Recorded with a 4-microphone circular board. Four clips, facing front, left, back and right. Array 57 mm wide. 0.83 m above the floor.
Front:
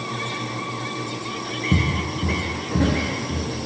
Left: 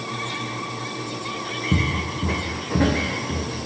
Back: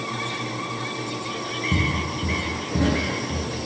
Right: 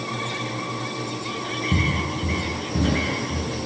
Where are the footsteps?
50° left, 2.5 m; by 3.5 s 95° left, 3.5 m.